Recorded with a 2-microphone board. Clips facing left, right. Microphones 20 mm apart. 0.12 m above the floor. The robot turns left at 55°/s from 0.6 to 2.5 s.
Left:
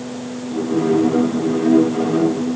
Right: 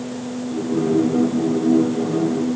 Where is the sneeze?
No sneeze in this recording.